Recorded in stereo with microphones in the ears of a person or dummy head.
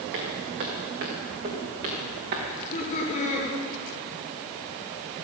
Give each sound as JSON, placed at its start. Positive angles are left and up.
{"t": 0.1, "sound": "footsteps", "side_deg": -55, "distance_m": 3.5}
{"t": 2.5, "sound": "laughter", "side_deg": 35, "distance_m": 5.0}